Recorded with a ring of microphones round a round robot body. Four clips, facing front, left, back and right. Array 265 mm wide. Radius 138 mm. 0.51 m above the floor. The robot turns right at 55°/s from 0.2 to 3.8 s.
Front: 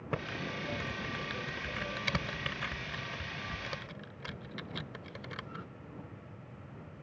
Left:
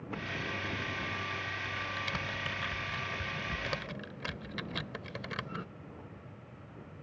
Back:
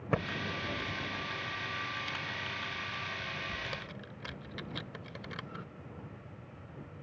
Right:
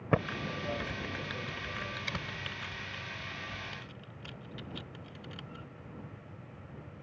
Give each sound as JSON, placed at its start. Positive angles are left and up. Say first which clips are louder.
{"t": 0.1, "sound": "typing on a keyboard", "louder": "right 7 dB, back 4 dB", "azimuth_deg": -105}